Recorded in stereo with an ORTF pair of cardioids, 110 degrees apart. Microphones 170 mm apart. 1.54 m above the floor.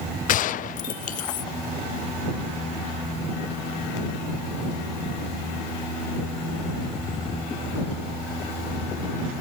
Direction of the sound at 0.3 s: 50° left.